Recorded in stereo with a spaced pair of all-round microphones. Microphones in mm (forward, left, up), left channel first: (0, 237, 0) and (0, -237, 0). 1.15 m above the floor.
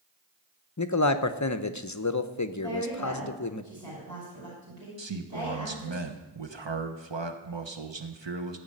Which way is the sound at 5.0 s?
60° right (ahead or behind).